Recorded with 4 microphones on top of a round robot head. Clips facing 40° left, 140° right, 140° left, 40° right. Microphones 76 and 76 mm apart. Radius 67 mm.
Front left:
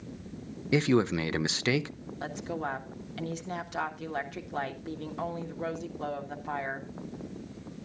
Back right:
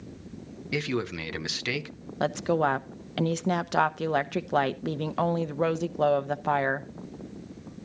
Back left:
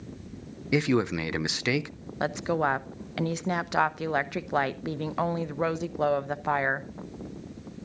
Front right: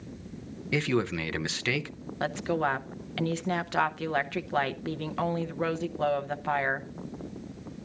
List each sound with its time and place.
0.7 s a man speaking: 80° left, 0.6 m
2.2 s a woman speaking: 145° right, 0.7 m